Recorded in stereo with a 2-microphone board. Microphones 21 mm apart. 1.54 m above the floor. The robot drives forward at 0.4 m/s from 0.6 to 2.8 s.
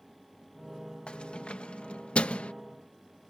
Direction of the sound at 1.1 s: 60° left (ahead or behind).